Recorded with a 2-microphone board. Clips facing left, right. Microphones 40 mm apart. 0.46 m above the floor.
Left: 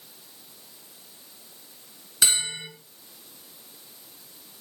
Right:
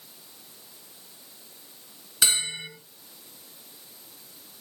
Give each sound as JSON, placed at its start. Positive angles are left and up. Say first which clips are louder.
{"t": 2.2, "sound": "a bell", "louder": "even", "side_deg": -5, "distance_m": 5.5}